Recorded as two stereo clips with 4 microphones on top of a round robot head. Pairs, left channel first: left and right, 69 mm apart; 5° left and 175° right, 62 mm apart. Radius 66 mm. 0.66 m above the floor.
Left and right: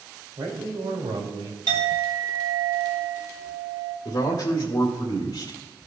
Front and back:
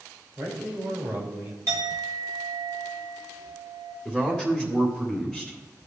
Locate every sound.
0.4 s a man speaking: 125° right, 2.5 m; by 1.6 s 110° right, 1.9 m
1.7 s a clink: 125° right, 1.8 m
4.0 s a man speaking: 105° left, 2 m